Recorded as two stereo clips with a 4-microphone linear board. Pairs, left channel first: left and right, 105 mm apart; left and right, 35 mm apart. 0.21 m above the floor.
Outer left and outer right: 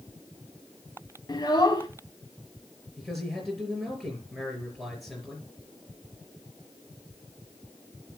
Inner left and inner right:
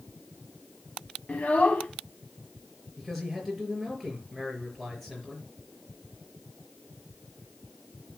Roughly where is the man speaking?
Centre.